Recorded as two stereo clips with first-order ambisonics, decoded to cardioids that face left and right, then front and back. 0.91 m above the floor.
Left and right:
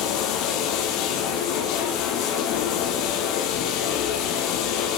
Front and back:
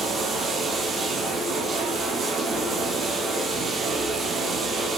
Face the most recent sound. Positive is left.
turn(degrees=110)